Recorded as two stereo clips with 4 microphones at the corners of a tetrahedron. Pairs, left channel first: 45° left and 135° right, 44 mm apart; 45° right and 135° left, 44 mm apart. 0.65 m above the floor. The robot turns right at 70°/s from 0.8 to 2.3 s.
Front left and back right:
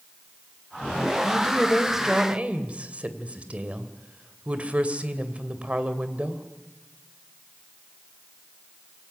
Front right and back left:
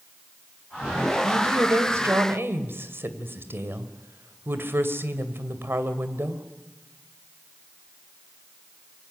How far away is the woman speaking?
About 2.5 m.